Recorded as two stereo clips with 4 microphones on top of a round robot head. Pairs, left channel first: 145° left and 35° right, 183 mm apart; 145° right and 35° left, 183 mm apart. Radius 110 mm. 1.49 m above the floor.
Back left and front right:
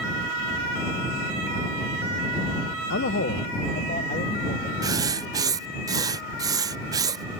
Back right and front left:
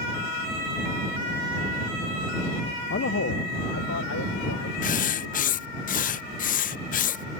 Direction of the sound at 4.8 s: 105° right.